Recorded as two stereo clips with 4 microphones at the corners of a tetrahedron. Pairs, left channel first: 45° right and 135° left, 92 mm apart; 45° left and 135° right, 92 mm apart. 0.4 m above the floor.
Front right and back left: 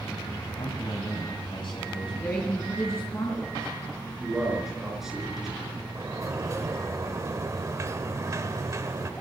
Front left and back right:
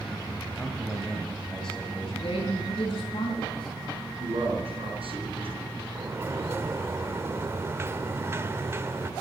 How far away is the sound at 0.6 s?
About 2.5 m.